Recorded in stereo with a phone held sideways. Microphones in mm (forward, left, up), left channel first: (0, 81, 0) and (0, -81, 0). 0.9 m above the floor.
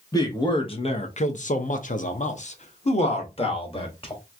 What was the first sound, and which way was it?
A man speaking, 20° left (ahead or behind).